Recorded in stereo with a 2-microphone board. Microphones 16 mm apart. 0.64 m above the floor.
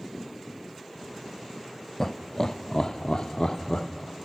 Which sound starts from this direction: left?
Laughter, at 2.0 s.